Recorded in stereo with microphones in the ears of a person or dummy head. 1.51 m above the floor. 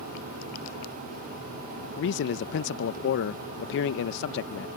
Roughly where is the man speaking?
Left.